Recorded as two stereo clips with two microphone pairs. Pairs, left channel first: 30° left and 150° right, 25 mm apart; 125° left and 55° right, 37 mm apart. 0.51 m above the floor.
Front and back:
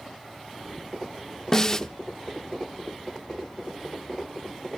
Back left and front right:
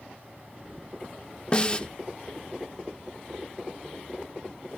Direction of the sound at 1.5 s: 85° left.